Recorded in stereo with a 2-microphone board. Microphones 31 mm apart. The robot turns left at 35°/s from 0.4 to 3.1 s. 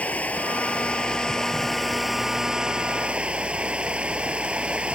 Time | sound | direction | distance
0.0 | running water | 55° left | ?